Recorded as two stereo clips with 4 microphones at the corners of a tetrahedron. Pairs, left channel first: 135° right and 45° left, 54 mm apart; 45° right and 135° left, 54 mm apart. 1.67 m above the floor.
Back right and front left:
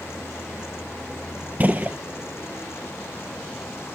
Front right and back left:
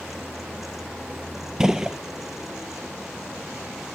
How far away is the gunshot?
About 0.8 m.